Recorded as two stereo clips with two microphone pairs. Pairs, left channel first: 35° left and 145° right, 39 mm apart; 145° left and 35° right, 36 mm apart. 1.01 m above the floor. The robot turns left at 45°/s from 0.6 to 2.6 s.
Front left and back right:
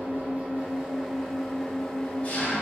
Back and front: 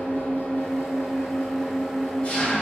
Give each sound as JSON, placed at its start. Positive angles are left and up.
{"t": 0.0, "sound": "an engine running", "azimuth_deg": 165, "distance_m": 2.5}